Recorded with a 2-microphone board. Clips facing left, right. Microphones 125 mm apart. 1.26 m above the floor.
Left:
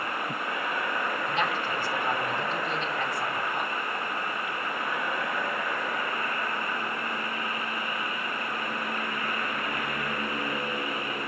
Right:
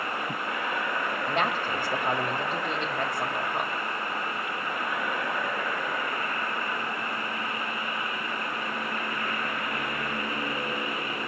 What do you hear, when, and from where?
1.3 s a woman speaking: 55° right (ahead or behind), 5 m